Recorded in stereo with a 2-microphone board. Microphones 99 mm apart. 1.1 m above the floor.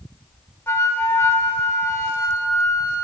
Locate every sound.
0.7 s a flute: 25° left (ahead or behind), 0.7 m